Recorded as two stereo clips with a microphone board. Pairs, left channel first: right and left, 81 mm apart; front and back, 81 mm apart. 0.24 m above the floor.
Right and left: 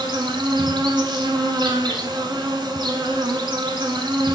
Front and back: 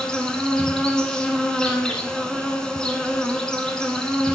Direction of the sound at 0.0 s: 80° left.